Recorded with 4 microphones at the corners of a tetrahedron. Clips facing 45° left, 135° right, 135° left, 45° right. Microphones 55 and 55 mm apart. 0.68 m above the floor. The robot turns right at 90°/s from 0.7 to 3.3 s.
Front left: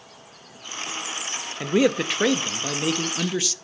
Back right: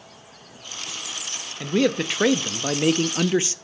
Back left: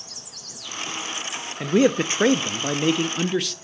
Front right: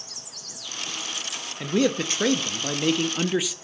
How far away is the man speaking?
About 0.6 m.